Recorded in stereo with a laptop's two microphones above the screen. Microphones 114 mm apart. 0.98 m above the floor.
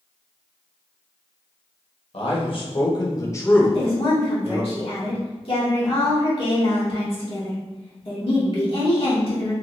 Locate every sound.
2.1 s a man speaking: 55° left (ahead or behind), 1.1 m; by 4.6 s 25° right (ahead or behind), 0.8 m
3.6 s a woman speaking: 55° left (ahead or behind), 1.1 m